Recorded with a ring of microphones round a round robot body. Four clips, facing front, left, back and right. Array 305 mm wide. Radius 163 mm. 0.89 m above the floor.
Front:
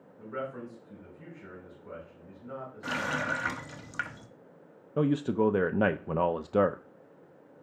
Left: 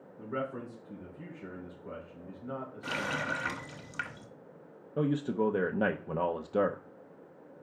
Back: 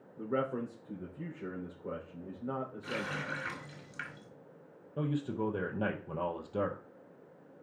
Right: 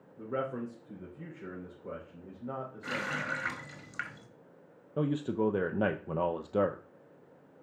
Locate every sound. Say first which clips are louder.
0.2 s a man speaking: right 2 dB, back 4 dB; 160° right, 3.5 m
2.8 s a running tap: left 2 dB, front 6 dB; 20° left, 1.2 m
5.0 s a man speaking: left 1 dB, front 8 dB; straight ahead, 0.7 m